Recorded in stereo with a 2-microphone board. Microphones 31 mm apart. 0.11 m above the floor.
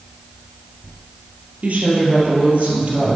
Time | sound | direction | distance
1.6 | a woman speaking | 60° right (ahead or behind) | 3 m